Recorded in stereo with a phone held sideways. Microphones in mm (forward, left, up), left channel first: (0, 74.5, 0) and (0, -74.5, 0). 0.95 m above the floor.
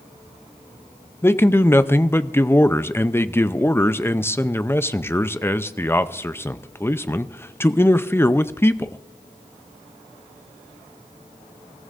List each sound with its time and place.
1.2 s a man speaking: 15° left (ahead or behind), 0.6 m